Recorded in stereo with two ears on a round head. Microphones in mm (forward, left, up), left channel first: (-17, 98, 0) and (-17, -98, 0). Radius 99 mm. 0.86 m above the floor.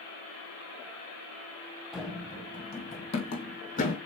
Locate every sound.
1.9 s running footsteps: centre (ahead or behind), 1.4 m; by 4.0 s 40° left (ahead or behind), 2.5 m